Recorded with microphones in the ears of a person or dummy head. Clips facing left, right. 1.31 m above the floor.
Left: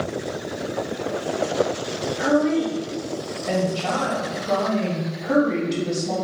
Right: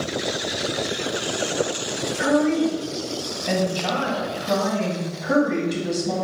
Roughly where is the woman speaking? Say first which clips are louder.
Even; centre.